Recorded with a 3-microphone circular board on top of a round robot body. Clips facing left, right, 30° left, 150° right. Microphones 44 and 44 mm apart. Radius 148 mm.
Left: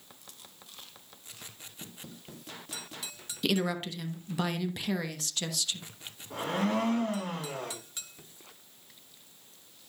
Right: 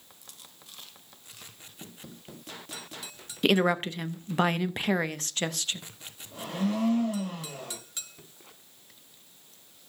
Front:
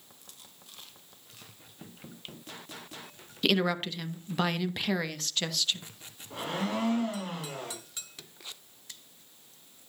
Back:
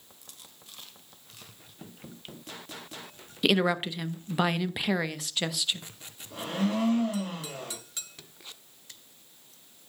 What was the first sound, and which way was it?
A woman speaking, 75° right.